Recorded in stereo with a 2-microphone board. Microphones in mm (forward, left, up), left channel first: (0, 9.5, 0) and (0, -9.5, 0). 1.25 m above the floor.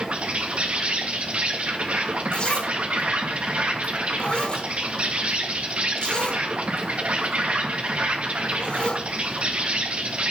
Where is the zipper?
55° left (ahead or behind), 4 m.